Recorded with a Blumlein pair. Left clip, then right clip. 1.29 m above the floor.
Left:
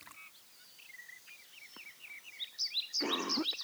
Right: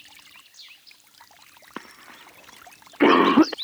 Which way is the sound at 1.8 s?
40° right.